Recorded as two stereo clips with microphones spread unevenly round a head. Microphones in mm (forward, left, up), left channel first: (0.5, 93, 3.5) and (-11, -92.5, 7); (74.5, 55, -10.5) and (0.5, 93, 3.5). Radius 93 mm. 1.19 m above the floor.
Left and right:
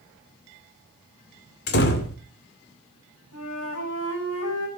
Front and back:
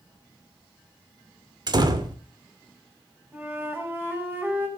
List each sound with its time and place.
1.7 s a door slam: 120° left, 2 m
3.3 s a flute: 90° left, 4.5 m